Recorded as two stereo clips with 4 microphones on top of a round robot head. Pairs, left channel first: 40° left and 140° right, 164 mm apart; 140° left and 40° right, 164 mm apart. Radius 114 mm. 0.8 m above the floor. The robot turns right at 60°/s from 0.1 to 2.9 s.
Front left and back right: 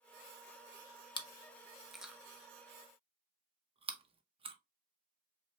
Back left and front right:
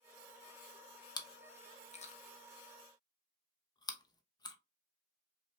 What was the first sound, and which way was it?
Chewing, 85° left.